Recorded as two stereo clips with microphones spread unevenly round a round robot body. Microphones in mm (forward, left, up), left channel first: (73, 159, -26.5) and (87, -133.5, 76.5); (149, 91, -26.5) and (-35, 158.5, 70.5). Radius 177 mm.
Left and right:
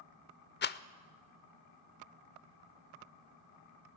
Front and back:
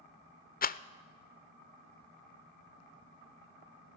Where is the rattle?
35° left, 0.6 m.